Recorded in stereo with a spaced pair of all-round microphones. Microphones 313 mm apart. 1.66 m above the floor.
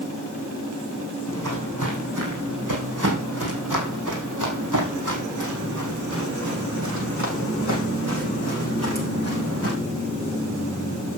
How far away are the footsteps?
About 6.5 m.